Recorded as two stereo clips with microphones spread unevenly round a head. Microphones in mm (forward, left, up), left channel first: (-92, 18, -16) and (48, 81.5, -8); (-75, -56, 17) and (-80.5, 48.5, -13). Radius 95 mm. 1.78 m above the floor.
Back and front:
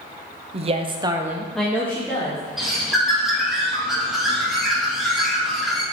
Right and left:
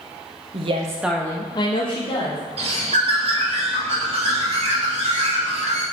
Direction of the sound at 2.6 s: 110° left.